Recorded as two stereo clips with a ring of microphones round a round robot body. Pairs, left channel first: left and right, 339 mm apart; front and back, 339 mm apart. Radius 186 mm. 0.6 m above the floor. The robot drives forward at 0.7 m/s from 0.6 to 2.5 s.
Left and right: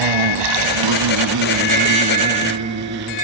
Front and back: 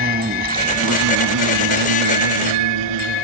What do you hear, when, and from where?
0.0 s an insect: 110° right, 1.0 m; by 3.2 s 155° right, 1.9 m